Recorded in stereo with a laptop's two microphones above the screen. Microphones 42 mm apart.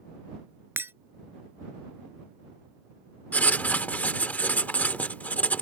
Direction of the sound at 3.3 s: 45° left (ahead or behind).